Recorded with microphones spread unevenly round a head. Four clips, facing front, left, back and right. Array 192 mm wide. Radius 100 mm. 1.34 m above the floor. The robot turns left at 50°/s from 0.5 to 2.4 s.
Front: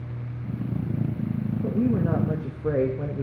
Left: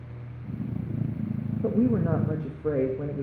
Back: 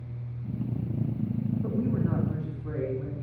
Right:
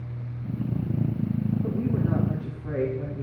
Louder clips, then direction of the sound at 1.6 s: Left 3 dB, front 7 dB; 70° left.